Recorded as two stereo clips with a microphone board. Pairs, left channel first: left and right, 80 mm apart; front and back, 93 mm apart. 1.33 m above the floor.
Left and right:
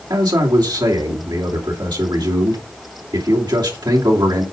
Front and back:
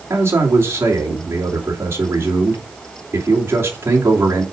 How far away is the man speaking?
About 2.5 m.